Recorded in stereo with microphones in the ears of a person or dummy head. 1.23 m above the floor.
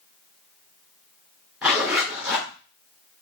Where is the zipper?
Centre (ahead or behind), 3 m.